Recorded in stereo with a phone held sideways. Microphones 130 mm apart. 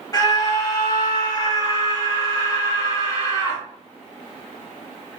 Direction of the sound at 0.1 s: 30° left (ahead or behind).